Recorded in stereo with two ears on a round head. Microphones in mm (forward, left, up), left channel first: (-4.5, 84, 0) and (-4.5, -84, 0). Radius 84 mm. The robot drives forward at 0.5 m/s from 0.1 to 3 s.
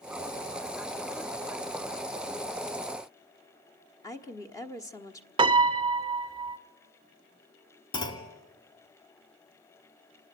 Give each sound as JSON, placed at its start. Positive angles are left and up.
{"t": 4.0, "sound": "a woman speaking", "side_deg": 20, "distance_m": 1.2}
{"t": 5.4, "sound": "a piano", "side_deg": -25, "distance_m": 0.5}
{"t": 7.9, "sound": "a clunk", "side_deg": 25, "distance_m": 2.0}